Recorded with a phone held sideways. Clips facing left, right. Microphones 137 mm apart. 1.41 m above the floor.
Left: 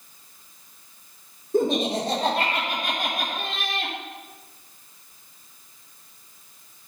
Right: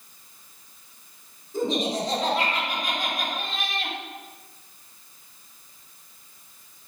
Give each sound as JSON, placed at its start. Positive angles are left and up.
{"t": 1.5, "sound": "laughter", "side_deg": 55, "distance_m": 5.0}